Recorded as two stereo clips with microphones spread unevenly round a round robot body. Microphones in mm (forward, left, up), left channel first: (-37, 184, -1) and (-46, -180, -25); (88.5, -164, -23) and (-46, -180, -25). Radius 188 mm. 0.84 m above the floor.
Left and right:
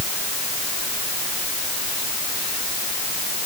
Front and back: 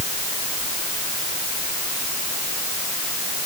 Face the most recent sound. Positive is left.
No sound to turn to.